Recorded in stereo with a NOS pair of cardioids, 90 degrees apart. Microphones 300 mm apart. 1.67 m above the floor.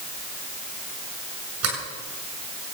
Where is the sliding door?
60° right, 8 m.